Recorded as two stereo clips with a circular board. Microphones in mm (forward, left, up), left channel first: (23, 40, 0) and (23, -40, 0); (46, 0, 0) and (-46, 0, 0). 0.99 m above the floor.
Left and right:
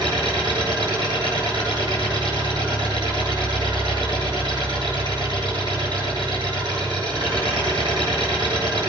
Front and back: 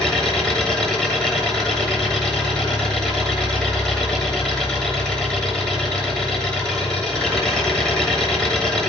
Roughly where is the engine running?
Right.